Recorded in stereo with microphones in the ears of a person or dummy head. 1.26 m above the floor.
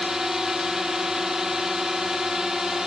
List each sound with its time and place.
0.0 s a drone: 5° right (ahead or behind)